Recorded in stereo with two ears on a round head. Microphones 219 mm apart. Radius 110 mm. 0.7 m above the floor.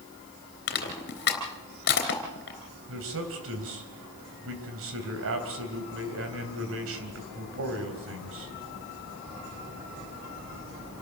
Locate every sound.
0.7 s crushing: 40° left (ahead or behind), 3.5 m
2.9 s a man speaking: 60° right (ahead or behind), 3.5 m